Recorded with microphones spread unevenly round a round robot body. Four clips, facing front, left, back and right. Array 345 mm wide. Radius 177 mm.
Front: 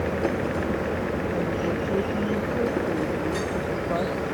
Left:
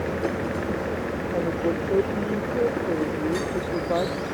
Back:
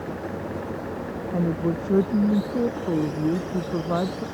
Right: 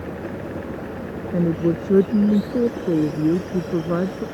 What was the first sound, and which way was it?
A woman speaking, 115° right.